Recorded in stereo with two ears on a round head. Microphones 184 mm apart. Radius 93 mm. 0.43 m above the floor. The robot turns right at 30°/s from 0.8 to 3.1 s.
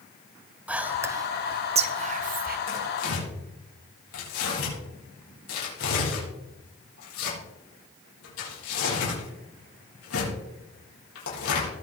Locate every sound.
0.7 s whispering: 5° right (ahead or behind), 1.3 m; by 2.6 s 50° right (ahead or behind), 1.3 m
2.7 s tearing paper: 60° left (ahead or behind), 7 m; by 11.7 s 70° left (ahead or behind), 7 m